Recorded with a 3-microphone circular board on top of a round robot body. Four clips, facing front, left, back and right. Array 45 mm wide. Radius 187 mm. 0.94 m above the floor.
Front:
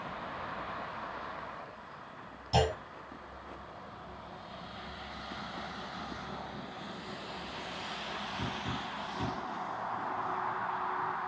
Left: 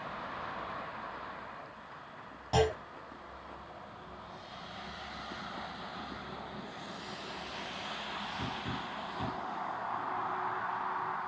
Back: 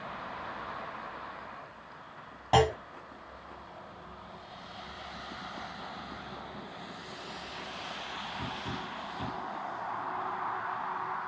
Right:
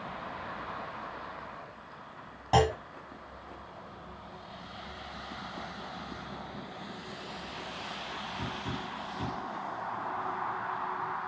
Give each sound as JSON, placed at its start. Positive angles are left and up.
{"t": 2.5, "sound": "a clunk", "azimuth_deg": -160, "distance_m": 2.0}